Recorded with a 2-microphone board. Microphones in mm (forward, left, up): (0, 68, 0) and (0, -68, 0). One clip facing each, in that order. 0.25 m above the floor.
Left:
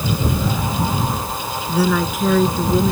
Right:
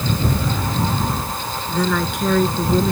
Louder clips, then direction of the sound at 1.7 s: Left 3 dB; 5° left (ahead or behind).